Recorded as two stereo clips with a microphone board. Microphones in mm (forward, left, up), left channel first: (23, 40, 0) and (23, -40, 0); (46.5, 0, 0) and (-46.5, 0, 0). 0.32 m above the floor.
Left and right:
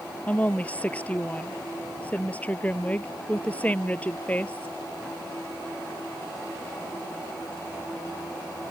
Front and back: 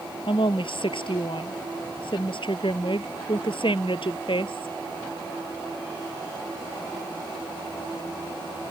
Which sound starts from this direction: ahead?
A woman speaking, at 0.3 s.